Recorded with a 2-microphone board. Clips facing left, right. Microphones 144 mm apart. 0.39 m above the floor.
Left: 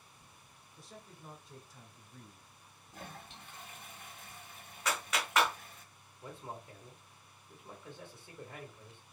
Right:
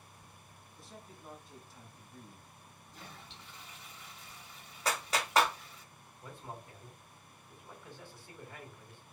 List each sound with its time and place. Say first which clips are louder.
0.8 s a man speaking: even; centre (ahead or behind), 0.9 m
2.9 s a toilet flushing: left 4 dB; 50° left (ahead or behind), 0.6 m
4.8 s a clap: right 2 dB; 30° right (ahead or behind), 0.7 m
6.2 s a man speaking: left 1 dB; 20° left (ahead or behind), 1.4 m